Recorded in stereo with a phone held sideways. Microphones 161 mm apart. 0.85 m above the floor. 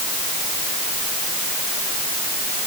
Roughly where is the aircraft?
No aircraft in this recording.